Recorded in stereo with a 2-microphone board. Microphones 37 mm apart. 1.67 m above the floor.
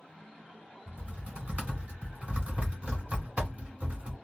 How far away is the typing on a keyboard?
About 1.5 m.